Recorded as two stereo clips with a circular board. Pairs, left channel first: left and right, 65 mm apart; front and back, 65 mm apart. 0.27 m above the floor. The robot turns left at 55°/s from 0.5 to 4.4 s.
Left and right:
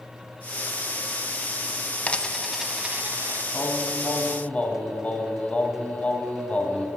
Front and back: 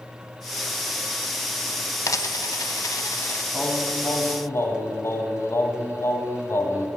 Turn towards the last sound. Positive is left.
turn(degrees=30)